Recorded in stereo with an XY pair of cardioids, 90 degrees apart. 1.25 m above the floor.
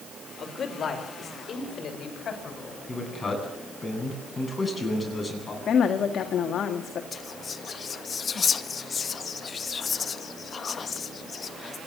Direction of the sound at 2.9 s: 25° left.